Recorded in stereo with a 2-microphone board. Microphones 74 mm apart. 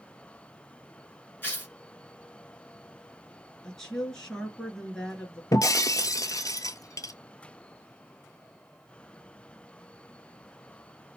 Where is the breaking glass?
50° left (ahead or behind), 0.6 m.